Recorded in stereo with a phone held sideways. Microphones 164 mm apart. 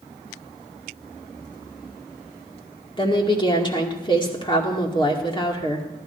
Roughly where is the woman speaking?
Left.